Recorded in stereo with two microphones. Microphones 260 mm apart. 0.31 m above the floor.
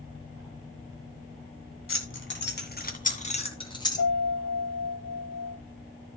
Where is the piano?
40° left (ahead or behind), 8.5 m.